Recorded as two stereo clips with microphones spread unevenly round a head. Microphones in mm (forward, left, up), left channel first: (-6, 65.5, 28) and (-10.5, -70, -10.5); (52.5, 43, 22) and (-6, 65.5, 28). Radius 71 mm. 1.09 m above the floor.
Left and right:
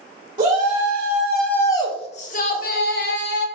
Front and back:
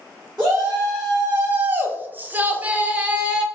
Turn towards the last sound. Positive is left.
turn(degrees=85)